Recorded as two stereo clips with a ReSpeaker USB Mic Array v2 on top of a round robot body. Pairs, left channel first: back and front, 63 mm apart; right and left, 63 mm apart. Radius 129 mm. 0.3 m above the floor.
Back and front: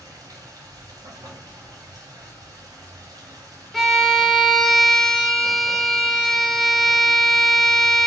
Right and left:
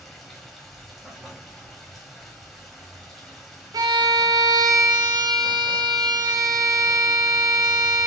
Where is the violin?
95° left, 0.8 m.